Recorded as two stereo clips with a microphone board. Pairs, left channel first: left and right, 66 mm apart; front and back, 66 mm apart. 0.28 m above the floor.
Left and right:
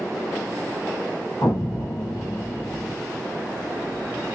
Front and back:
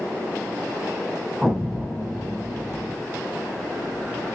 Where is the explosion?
90° left, 1.4 m.